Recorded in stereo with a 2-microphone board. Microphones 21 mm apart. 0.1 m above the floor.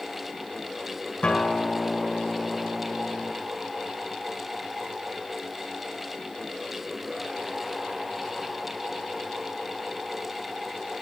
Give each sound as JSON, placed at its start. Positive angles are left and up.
{"t": 1.2, "sound": "a guitar", "side_deg": 65, "distance_m": 4.0}